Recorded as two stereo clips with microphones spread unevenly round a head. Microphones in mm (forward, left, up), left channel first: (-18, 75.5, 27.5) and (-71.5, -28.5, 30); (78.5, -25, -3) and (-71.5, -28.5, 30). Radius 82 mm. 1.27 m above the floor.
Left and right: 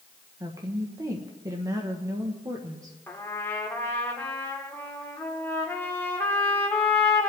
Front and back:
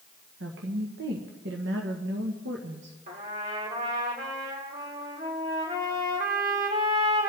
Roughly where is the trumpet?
Behind left.